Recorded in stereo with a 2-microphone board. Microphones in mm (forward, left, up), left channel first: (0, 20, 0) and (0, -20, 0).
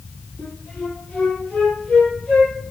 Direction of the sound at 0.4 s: 20° left (ahead or behind).